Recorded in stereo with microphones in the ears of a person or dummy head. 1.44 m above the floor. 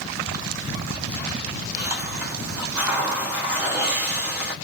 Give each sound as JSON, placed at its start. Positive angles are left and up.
{"t": 1.8, "sound": "a hiss", "side_deg": -5, "distance_m": 1.3}